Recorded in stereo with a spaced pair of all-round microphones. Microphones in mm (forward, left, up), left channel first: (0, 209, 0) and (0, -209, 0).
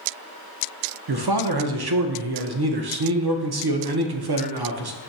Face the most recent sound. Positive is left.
turn(degrees=-65)  # may be behind; listen again after turning